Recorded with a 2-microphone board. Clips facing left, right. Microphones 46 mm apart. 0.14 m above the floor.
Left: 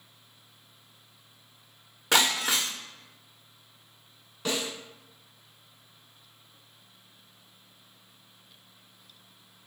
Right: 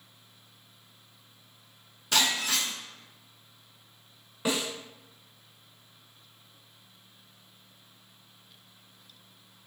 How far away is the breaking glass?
About 0.8 m.